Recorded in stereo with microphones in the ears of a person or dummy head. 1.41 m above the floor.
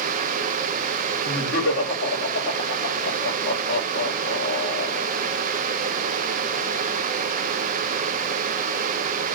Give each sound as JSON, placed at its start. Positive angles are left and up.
{"t": 1.2, "sound": "laughter", "side_deg": 80, "distance_m": 2.5}